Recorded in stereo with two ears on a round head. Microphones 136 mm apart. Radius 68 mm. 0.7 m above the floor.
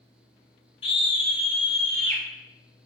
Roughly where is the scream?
Left.